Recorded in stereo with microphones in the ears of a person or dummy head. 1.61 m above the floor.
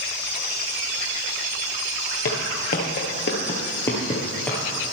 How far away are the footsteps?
About 1.9 m.